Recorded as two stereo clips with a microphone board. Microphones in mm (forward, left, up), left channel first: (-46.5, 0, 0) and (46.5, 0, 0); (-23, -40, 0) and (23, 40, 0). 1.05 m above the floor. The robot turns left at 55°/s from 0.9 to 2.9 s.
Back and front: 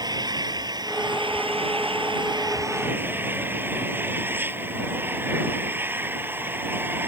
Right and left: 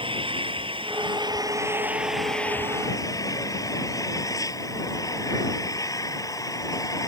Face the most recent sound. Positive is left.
turn(degrees=-70)